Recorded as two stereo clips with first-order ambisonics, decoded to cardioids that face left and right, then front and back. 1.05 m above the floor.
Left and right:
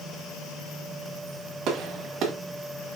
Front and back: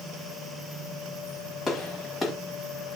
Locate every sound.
1.7 s a gunshot: 75° right, 1.1 m